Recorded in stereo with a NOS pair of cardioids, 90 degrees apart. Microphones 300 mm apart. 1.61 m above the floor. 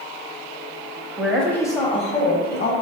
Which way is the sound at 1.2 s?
5° right.